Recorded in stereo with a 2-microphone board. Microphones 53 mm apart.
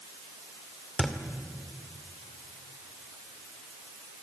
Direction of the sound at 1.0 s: 5° left (ahead or behind).